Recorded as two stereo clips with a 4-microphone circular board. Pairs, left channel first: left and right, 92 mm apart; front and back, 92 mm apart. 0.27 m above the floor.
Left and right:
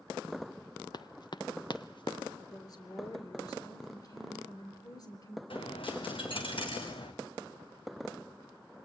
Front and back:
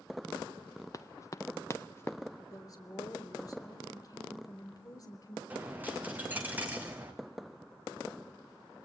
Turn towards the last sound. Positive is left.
turn(degrees=110)